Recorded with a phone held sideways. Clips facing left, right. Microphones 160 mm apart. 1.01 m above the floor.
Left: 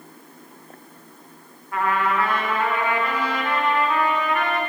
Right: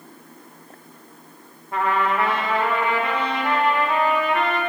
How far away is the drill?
No drill in this recording.